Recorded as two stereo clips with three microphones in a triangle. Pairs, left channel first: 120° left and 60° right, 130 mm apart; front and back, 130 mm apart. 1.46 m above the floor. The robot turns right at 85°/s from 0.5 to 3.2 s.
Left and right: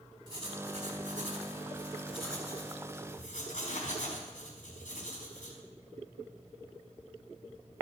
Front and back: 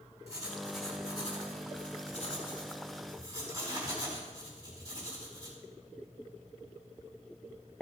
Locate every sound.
0.3 s writing: 115° right, 4 m; by 5.6 s 115° left, 4 m